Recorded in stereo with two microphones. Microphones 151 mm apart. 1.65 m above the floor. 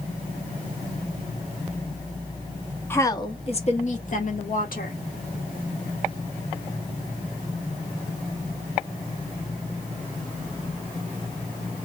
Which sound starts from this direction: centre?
A woman speaking, at 2.9 s.